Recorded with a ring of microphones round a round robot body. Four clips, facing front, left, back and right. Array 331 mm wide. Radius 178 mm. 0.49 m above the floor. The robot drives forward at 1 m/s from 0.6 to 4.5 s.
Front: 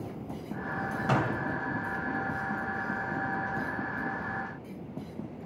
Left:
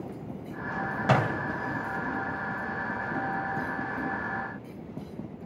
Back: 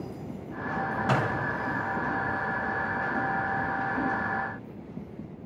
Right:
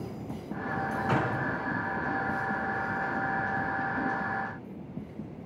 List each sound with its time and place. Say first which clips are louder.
1.1 s a door slam: left 5 dB, even; 95° left, 2 m; by 1.4 s 100° left, 2 m